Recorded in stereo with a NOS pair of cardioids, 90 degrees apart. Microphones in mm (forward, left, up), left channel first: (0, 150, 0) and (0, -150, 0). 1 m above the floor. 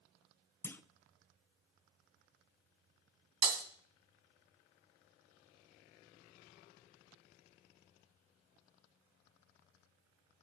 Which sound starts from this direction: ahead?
A clunk, at 0.6 s.